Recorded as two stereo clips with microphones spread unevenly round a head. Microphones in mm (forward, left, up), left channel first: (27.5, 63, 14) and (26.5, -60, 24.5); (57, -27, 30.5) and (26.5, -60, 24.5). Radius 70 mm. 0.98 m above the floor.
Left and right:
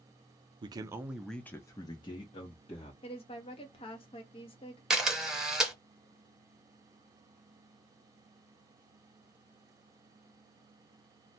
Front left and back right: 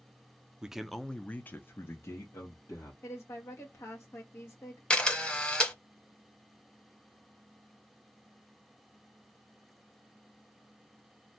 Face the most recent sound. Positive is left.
turn(degrees=-10)